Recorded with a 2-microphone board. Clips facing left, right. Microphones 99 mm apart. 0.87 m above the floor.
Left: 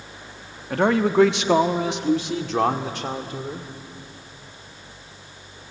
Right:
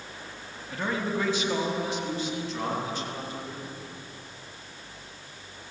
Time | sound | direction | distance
0.7 | a man speaking | 65° left (ahead or behind) | 1.2 m